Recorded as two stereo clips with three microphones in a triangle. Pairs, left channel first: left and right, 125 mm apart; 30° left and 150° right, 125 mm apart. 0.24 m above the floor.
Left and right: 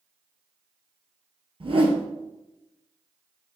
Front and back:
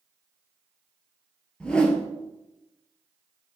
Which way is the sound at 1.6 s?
50° right.